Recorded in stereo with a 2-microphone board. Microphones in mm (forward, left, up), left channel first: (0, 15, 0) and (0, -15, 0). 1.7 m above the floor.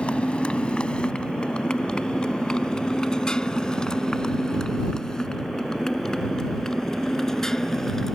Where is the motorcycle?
35° left (ahead or behind); by 8.2 s 15° left (ahead or behind).